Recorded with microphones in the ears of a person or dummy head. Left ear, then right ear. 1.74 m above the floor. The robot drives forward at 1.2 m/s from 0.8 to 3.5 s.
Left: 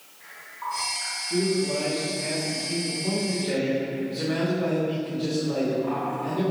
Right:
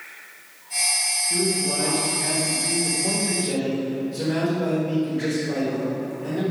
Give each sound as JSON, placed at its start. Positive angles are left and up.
{"t": 1.3, "sound": "a man speaking", "side_deg": -20, "distance_m": 2.0}